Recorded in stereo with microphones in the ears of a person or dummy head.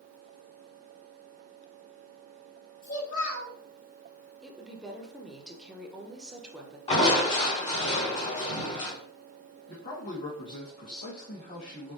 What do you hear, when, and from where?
2.8 s a child speaking: 45° left (ahead or behind), 2.5 m
4.4 s a woman speaking: 5° right (ahead or behind), 0.8 m
6.9 s crushing: 35° left (ahead or behind), 2.5 m
9.7 s a man speaking: 50° left (ahead or behind), 1.4 m